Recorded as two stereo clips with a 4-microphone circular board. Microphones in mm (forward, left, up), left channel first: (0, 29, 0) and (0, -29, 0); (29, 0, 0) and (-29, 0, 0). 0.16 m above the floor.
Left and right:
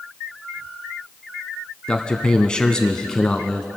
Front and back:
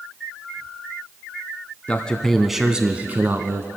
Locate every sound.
1.9 s a man speaking: 35° left, 1.1 m; by 3.7 s 165° left, 1.4 m